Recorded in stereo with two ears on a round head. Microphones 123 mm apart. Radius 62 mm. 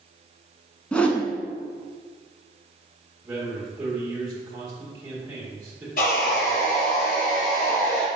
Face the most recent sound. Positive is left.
turn(degrees=70)  # may be behind; listen again after turning